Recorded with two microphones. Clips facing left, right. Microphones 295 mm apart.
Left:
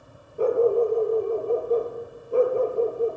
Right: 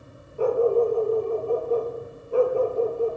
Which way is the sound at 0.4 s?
20° left (ahead or behind).